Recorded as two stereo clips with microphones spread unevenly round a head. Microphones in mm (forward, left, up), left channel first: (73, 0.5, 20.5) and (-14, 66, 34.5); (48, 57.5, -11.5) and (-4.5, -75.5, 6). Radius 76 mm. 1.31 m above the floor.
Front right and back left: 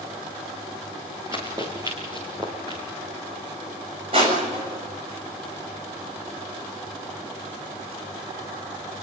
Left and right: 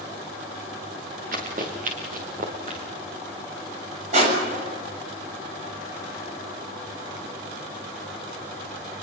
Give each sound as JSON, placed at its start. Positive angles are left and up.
{"t": 1.3, "sound": "running footsteps", "azimuth_deg": -150, "distance_m": 6.0}
{"t": 4.1, "sound": "crushing", "azimuth_deg": -160, "distance_m": 7.0}